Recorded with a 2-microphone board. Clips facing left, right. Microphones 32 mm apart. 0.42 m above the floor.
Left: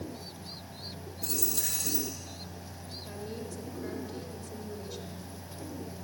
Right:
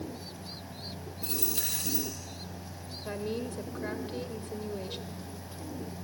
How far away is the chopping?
I don't hear chopping.